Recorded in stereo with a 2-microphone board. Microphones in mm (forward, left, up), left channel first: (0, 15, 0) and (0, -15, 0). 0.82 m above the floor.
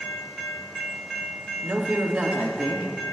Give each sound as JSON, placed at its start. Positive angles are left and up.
{"t": 1.6, "sound": "a man speaking", "side_deg": -55, "distance_m": 1.5}